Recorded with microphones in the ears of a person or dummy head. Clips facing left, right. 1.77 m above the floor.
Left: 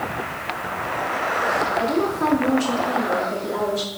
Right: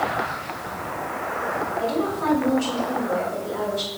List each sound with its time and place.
1.8 s a woman speaking: 75° left (ahead or behind), 5 m